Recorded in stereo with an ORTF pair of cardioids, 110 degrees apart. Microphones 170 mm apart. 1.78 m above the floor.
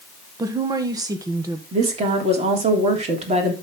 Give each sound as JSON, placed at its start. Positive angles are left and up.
{"t": 0.4, "sound": "a woman speaking", "azimuth_deg": -20, "distance_m": 1.4}
{"t": 1.7, "sound": "a woman speaking", "azimuth_deg": -40, "distance_m": 3.5}